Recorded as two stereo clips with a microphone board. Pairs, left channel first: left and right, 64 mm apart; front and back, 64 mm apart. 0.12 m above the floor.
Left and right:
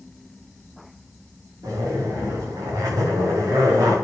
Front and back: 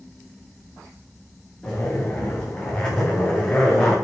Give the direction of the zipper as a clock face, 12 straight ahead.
3 o'clock.